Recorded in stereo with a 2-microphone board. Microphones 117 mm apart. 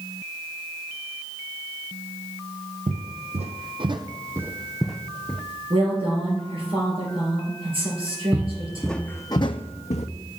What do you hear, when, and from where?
2.9 s footsteps: 80° right, 0.9 m; by 5.4 s 15° left (ahead or behind), 0.9 m
5.7 s a woman speaking: 50° right (ahead or behind), 3.5 m
8.3 s footsteps: 20° right (ahead or behind), 0.8 m; by 10.1 s 75° left (ahead or behind), 0.7 m